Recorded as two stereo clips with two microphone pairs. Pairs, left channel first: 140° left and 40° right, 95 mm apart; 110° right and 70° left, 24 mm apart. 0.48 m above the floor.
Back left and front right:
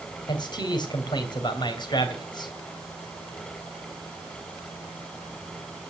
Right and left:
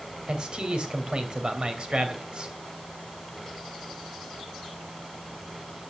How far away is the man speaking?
About 3 m.